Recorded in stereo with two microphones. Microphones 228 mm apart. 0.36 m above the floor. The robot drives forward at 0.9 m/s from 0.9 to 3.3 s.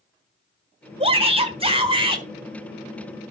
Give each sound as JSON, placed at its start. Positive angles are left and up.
{"t": 1.0, "sound": "a shout", "side_deg": -25, "distance_m": 1.6}